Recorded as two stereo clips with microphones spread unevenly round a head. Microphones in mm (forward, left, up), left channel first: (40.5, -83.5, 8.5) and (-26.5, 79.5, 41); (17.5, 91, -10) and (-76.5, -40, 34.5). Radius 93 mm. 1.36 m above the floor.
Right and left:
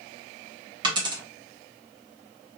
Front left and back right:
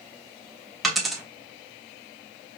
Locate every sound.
0.8 s a dropped coin: 160° left, 1.1 m